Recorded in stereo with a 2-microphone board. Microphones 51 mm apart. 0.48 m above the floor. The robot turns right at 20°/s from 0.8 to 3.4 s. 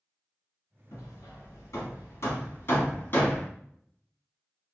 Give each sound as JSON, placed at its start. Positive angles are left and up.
{"t": 0.9, "sound": "hammering", "side_deg": 85, "distance_m": 1.5}